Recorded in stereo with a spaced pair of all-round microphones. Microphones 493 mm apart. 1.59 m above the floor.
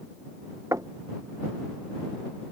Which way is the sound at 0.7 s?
5° right (ahead or behind).